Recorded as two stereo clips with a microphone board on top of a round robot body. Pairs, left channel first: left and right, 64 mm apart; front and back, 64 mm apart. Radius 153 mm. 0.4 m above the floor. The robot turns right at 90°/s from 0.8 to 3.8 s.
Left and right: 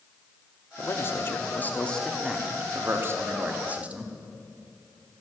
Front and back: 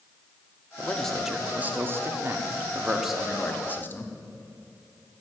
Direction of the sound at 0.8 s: 55° left.